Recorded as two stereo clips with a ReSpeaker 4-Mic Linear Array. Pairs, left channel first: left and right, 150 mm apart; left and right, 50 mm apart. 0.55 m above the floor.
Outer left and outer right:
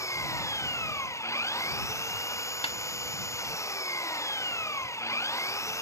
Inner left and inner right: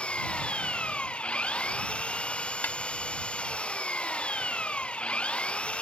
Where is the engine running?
20° left (ahead or behind).